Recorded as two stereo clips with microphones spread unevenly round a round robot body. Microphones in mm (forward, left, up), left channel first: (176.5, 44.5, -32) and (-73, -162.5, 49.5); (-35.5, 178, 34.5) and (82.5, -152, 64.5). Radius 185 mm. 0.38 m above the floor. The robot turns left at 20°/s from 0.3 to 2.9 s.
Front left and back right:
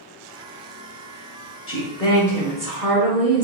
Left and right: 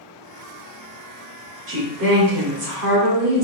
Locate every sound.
1.7 s a woman speaking: 20° right, 1.2 m; by 3.5 s 45° right, 1.2 m